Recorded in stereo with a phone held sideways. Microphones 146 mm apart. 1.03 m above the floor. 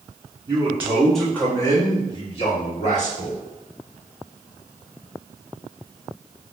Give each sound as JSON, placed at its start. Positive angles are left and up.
{"t": 0.5, "sound": "a man speaking", "side_deg": -25, "distance_m": 0.8}